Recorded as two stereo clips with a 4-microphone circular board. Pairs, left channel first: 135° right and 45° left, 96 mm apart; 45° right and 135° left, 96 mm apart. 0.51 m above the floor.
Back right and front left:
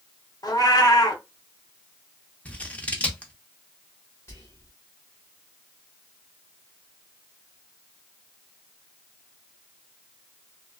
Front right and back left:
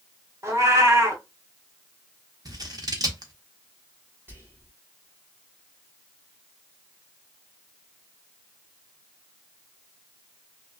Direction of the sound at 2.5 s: 155° left.